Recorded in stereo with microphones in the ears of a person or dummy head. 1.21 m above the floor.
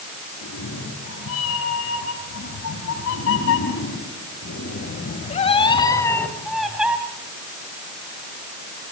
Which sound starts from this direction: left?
A cat meowing, at 0.4 s.